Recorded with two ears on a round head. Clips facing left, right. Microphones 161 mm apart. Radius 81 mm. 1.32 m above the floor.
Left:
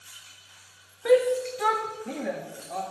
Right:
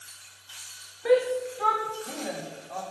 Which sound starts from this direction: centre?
A shout, at 1.1 s.